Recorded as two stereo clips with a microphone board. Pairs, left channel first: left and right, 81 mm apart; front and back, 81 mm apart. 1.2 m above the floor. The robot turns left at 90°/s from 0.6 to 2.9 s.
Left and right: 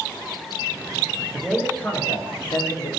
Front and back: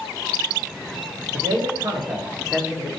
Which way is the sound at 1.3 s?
160° right.